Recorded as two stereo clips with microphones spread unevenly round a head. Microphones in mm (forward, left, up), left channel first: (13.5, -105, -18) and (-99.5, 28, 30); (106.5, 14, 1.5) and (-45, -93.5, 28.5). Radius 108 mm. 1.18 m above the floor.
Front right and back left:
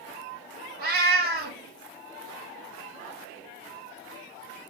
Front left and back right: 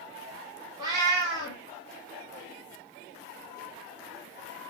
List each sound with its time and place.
0.8 s a cat meowing: 145° left, 0.9 m